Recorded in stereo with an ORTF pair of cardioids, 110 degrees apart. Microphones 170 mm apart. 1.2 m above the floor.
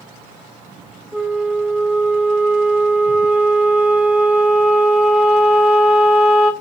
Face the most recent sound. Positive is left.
turn(degrees=-5)